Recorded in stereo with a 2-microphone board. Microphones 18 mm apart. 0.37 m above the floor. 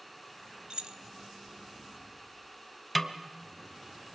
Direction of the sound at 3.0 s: Centre (ahead or behind).